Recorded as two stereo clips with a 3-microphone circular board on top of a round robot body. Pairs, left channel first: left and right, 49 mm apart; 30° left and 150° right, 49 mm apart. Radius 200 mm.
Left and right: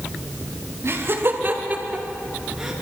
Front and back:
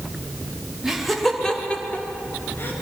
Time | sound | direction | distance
0.8 | laughter | 70° right | 2.5 m